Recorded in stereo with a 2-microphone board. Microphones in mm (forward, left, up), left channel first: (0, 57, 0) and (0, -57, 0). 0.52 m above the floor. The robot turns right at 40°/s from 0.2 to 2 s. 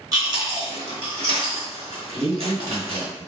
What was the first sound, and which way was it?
Chewing, 35° right (ahead or behind).